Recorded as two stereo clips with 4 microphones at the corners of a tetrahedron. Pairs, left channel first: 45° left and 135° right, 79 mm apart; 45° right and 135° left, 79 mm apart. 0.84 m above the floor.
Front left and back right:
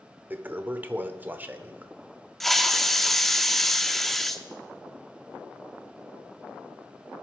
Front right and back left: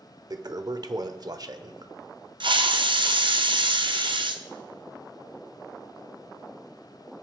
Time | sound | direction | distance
0.3 | a toilet flushing | 160° left | 0.7 m
2.4 | a hiss | 130° left | 0.9 m